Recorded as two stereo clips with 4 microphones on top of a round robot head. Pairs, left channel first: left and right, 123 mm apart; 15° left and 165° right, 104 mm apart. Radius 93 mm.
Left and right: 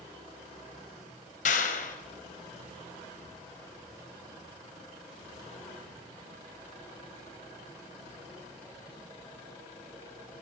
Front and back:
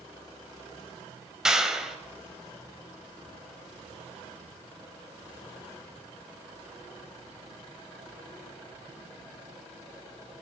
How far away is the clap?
About 4 m.